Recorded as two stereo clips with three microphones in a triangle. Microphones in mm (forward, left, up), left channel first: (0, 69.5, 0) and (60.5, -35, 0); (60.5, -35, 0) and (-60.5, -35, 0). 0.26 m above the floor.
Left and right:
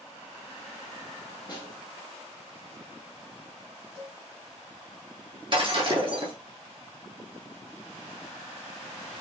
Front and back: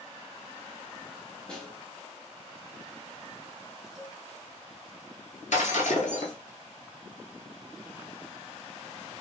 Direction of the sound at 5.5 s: 15° right.